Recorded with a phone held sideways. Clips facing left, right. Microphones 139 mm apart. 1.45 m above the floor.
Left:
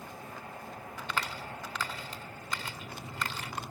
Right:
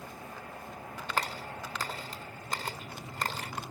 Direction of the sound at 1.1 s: 45° right (ahead or behind).